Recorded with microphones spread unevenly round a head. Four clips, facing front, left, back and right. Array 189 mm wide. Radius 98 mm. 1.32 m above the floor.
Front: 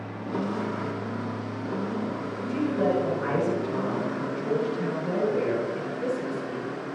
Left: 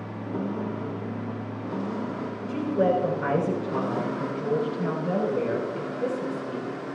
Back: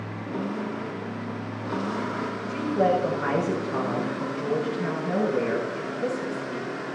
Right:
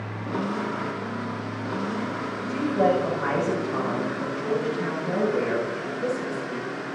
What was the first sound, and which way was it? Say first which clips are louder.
A woman speaking: right 1 dB, back 2 dB; 70° left.